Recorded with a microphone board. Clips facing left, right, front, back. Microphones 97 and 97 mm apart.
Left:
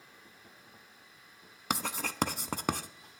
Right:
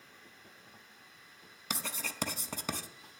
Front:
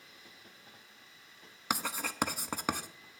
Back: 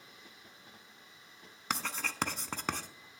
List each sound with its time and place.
1.7 s writing: 80° left, 0.5 m